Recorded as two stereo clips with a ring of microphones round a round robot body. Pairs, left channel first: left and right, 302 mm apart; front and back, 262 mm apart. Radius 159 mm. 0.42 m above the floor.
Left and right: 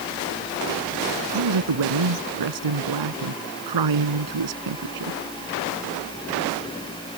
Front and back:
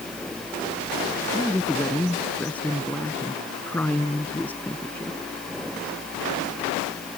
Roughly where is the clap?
I don't hear a clap.